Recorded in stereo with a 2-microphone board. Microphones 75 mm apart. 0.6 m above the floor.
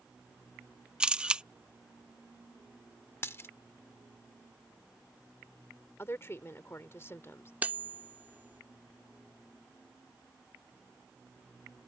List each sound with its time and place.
1.0 s a camera shutter: 15° right (ahead or behind)
3.2 s a dropped coin: 35° left (ahead or behind)
6.0 s a woman speaking: 35° left (ahead or behind)
7.6 s cutlery clinking: 20° right (ahead or behind)